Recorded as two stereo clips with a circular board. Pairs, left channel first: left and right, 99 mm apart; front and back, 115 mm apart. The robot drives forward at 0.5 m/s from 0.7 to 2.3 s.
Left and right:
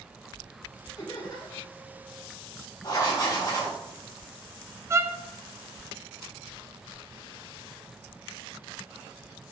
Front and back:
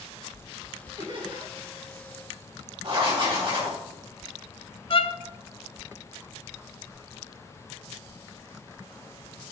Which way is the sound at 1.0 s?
135° left.